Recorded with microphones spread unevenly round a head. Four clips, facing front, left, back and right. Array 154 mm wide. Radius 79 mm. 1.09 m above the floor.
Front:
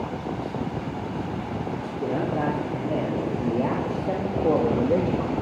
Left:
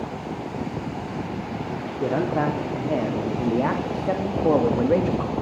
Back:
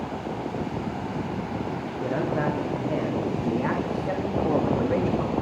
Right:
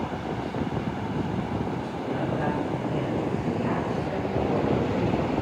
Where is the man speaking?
75° left, 3 m; by 5.3 s 60° left, 1.5 m.